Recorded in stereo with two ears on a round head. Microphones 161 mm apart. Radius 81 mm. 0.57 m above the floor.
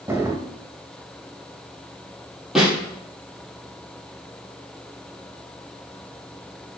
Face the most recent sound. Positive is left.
turn(degrees=-5)  # may be behind; listen again after turning